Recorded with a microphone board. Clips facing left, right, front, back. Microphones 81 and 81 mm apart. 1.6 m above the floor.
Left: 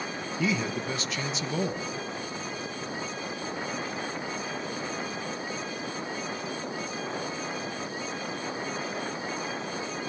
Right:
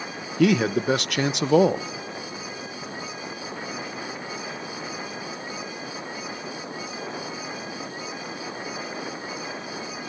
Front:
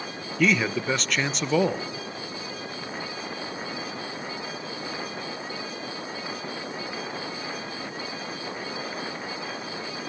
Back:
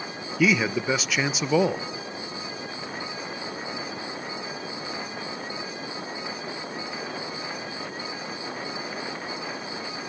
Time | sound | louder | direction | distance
0.4 | a man speaking | right 10 dB, back 1 dB | 95° right | 1.0 m